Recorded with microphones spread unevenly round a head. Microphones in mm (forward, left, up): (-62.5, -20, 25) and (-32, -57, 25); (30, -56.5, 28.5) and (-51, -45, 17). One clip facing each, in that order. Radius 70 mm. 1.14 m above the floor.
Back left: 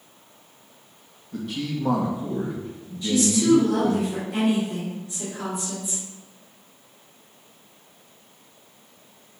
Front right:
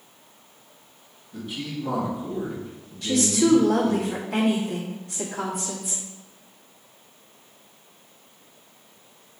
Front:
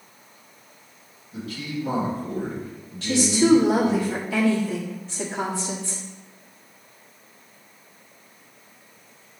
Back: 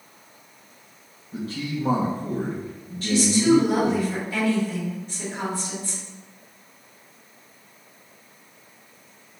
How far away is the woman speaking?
About 2 m.